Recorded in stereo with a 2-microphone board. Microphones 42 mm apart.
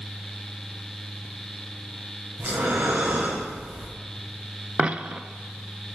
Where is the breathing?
60° right (ahead or behind), 4 m.